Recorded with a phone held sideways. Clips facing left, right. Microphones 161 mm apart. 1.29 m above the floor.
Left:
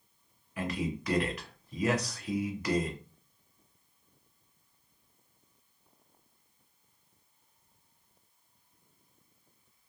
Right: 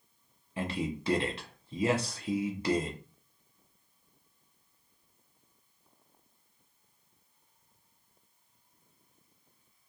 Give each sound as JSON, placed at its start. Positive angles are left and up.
{"t": 0.6, "sound": "a man speaking", "side_deg": -30, "distance_m": 0.6}